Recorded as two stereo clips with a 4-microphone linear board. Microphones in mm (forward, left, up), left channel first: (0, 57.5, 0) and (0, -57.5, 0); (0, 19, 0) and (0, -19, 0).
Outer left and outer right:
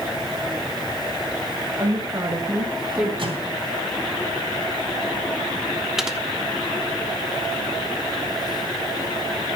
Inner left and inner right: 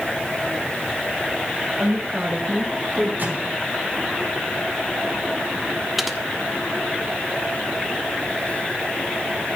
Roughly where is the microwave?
Right.